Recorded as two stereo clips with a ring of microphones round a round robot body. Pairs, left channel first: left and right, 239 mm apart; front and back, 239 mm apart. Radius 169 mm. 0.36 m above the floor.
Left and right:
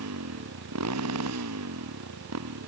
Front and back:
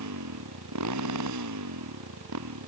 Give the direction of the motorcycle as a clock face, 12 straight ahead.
5 o'clock.